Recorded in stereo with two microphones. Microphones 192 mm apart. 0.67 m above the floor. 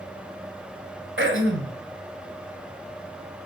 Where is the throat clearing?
85° right, 1.9 m.